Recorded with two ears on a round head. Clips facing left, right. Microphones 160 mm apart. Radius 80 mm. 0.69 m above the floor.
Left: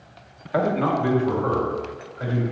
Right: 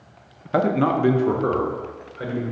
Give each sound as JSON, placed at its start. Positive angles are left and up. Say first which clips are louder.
{"t": 0.5, "sound": "a man speaking", "louder": "right 2 dB", "side_deg": -50, "distance_m": 0.7}